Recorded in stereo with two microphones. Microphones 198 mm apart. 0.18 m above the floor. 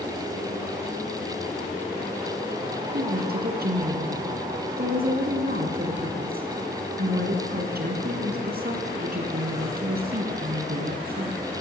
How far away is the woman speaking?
About 2 m.